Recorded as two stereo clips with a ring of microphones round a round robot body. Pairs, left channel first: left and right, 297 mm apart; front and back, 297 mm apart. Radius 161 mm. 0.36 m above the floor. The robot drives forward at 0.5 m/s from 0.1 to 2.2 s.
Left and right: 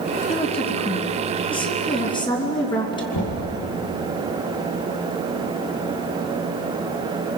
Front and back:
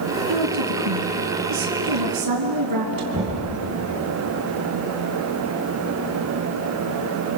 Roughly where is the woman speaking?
Behind.